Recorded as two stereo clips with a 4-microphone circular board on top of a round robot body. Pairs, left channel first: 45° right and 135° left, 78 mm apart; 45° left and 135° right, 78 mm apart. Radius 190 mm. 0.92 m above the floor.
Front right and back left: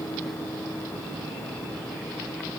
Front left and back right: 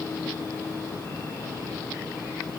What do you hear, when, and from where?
Only background noise.